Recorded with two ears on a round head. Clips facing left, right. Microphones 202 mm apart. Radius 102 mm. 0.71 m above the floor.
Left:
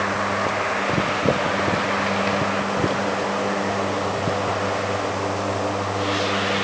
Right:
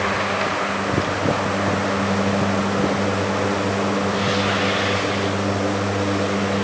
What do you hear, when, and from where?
Only background noise.